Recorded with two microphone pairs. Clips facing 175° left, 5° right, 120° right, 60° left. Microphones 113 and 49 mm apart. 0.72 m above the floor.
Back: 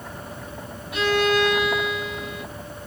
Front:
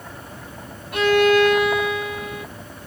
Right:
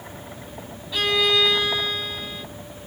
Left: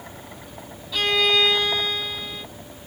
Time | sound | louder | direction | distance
0.9 | a violin | front 5 dB, even | 40° right | 7 m